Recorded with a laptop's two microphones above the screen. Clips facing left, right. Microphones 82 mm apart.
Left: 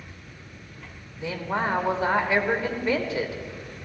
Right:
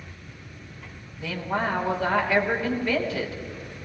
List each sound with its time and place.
1.2 s a woman speaking: 20° left (ahead or behind), 3 m